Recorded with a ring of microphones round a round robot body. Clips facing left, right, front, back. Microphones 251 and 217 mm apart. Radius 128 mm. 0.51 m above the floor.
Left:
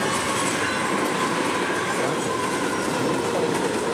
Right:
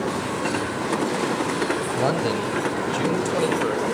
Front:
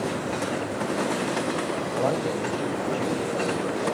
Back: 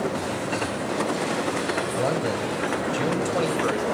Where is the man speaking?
110° right, 3 m; by 3.8 s 160° right, 2.5 m.